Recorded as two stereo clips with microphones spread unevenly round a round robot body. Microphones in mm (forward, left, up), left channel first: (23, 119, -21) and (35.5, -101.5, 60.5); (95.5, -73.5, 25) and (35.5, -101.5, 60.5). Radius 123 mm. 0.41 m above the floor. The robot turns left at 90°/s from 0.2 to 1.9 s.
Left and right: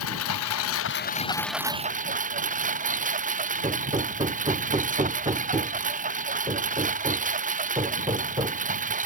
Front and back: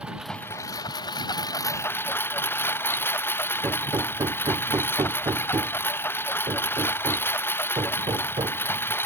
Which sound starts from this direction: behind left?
A lawn mower, at 0.0 s.